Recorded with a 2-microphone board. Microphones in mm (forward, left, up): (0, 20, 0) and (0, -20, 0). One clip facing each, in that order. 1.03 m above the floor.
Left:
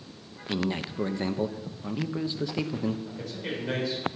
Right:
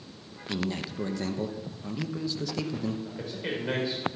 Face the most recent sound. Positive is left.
turn(degrees=-25)  # may be behind; listen again after turning